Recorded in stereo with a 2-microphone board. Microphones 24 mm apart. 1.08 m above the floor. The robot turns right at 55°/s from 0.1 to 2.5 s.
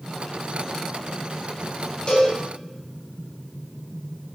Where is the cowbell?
45° left (ahead or behind), 0.6 m; by 2.4 s 35° left (ahead or behind), 0.6 m.